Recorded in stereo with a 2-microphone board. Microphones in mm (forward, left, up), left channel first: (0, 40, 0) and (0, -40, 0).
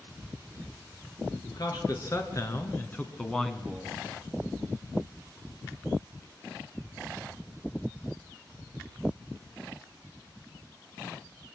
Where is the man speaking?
50° left (ahead or behind), 3.5 m; by 4.0 s 15° right (ahead or behind), 1.9 m.